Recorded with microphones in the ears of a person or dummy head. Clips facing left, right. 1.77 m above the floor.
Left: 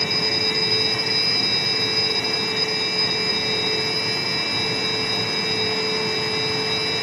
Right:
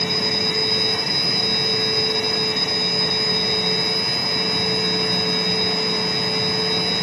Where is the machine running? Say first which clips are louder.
Right 2 dB; 75° right (ahead or behind), 10 m.